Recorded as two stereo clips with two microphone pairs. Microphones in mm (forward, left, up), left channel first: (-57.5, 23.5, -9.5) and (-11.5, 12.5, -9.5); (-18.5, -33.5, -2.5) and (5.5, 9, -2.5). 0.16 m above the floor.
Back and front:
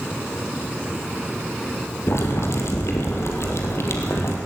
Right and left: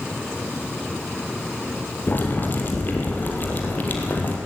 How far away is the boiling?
About 4 m.